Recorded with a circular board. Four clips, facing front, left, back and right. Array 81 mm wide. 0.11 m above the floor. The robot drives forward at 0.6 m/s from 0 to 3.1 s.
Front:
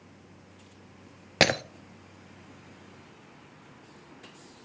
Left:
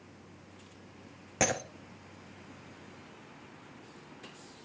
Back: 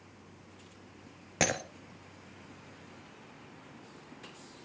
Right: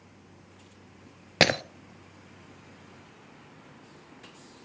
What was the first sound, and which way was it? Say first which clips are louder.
Breaking glass: right 6 dB, front 7 dB; 50° right.